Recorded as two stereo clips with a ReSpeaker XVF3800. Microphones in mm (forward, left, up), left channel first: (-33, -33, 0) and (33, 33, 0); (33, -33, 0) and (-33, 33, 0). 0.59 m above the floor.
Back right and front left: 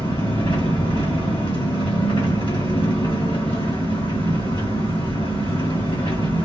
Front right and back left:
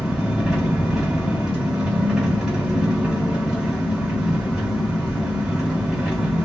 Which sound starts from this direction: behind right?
An engine running, at 0.0 s.